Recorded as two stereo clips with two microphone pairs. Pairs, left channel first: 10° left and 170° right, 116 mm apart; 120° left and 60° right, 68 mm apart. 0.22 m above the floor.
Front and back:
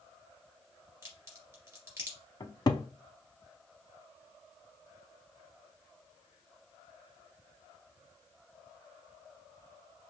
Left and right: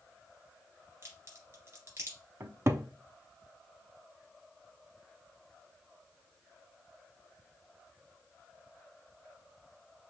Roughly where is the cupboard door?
Ahead right.